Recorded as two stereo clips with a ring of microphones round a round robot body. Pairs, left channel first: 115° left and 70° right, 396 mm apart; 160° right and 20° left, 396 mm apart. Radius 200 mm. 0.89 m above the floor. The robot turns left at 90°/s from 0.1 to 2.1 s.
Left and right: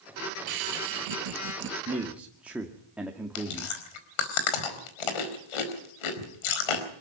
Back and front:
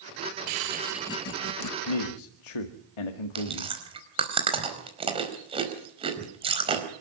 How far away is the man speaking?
About 1.9 m.